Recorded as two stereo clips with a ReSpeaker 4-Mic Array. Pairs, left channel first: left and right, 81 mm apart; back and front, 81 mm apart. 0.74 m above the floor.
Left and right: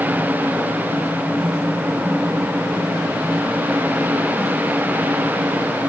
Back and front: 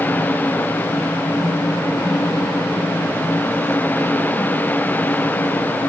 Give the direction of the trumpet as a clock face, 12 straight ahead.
No trumpet in this recording.